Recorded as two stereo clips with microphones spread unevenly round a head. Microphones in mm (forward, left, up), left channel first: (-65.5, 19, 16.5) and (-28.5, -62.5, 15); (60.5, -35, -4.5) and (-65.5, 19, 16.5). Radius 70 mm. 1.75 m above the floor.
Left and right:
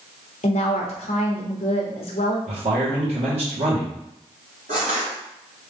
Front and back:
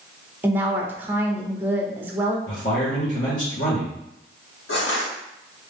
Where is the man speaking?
60° right, 1.5 m.